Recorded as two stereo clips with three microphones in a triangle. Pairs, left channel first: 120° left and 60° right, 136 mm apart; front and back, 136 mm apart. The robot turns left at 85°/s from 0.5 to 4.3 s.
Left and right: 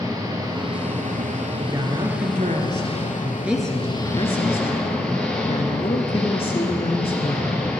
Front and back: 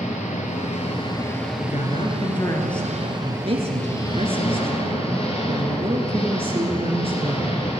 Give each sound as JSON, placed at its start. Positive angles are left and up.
{"t": 0.0, "sound": "an engine running", "azimuth_deg": 0, "distance_m": 2.5}
{"t": 1.6, "sound": "a woman speaking", "azimuth_deg": 20, "distance_m": 2.0}